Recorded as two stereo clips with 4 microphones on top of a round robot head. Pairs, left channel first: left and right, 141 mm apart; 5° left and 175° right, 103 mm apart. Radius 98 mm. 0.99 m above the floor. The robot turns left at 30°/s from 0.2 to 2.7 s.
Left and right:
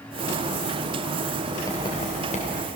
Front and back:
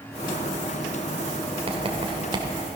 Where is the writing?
160° left, 2.5 m; by 2.5 s 135° left, 2.5 m.